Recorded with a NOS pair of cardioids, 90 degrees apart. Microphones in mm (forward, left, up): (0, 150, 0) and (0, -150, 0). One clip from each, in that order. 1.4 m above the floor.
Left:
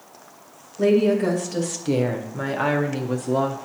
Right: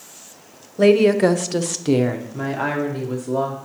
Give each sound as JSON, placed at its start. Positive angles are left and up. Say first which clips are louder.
{"t": 0.8, "sound": "a woman speaking", "louder": "right 5 dB", "azimuth_deg": -60, "distance_m": 0.8}